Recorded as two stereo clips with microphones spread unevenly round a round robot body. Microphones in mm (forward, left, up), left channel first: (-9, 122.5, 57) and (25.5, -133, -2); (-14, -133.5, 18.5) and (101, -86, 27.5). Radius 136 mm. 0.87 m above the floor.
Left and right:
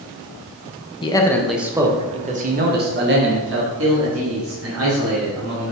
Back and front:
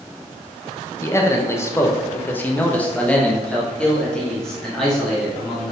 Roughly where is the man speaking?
Behind.